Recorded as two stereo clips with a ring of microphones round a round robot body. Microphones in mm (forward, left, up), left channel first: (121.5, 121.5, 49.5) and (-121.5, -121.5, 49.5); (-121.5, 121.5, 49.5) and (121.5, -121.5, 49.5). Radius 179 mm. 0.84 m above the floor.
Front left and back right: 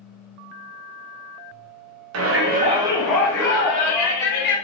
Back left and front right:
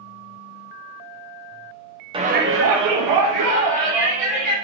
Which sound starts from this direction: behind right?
A shout, at 2.1 s.